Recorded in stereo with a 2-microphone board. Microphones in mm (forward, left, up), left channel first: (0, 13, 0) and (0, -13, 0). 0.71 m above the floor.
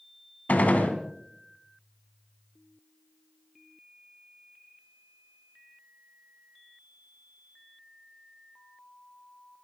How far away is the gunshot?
About 2.5 m.